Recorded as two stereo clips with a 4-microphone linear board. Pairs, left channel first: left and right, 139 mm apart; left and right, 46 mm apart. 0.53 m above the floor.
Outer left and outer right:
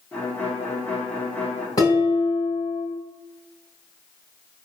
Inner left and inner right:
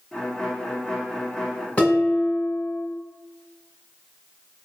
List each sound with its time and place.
0.1 s a violin: 10° left (ahead or behind), 1.3 m
1.8 s dishes clattering: 25° left (ahead or behind), 3 m